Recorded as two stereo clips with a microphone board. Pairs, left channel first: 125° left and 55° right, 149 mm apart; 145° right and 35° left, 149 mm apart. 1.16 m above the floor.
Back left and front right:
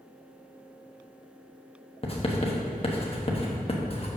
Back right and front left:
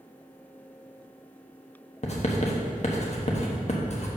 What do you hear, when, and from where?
2.0 s writing: 175° left, 1.1 m